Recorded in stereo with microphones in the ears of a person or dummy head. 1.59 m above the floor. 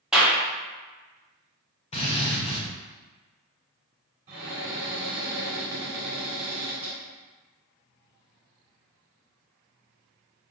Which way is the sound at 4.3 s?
20° right (ahead or behind).